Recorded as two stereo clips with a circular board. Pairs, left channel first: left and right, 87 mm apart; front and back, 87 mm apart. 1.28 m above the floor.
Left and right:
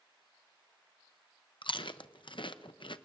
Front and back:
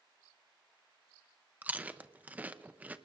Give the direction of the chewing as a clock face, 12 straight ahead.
8 o'clock.